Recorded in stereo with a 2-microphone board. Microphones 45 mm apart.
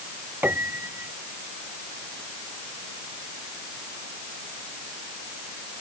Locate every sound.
0.4 s a piano: 40° right (ahead or behind)